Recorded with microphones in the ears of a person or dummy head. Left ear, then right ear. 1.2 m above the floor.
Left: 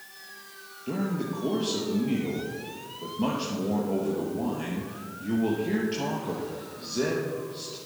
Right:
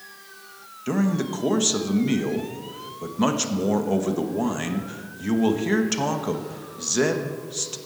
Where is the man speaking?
60° right (ahead or behind), 1.0 m.